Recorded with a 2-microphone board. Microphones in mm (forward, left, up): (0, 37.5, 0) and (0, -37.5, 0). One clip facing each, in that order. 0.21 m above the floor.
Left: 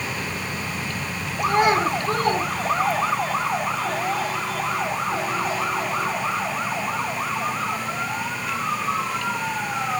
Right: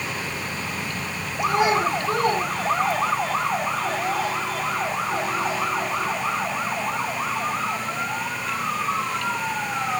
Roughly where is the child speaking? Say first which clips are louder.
Left 1 dB; left.